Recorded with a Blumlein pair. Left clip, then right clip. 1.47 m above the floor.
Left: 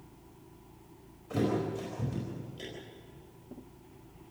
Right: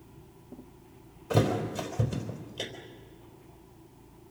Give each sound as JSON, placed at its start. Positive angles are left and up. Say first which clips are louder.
{"t": 1.3, "sound": "a thud", "louder": "right 4 dB", "azimuth_deg": -65, "distance_m": 4.0}